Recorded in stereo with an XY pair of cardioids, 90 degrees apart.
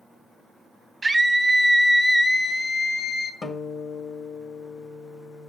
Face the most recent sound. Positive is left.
turn(degrees=50)